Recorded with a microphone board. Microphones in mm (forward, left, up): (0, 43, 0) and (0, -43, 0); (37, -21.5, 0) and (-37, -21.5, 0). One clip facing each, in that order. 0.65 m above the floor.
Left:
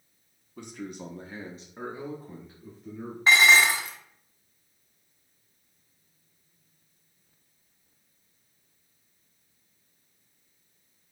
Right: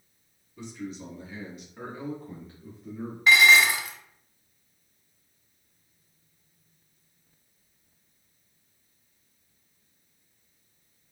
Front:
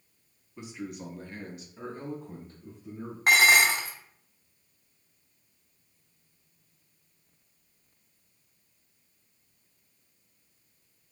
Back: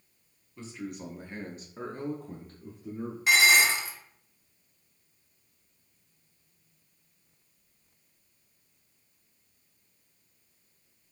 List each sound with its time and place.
0.6 s a man speaking: 70° left, 1.0 m; by 3.2 s 170° right, 1.8 m
3.3 s dishes clattering: 35° left, 0.8 m